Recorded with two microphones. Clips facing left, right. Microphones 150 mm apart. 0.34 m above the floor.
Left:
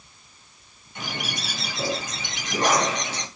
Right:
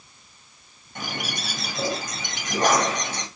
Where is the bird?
45° right (ahead or behind), 1.9 m.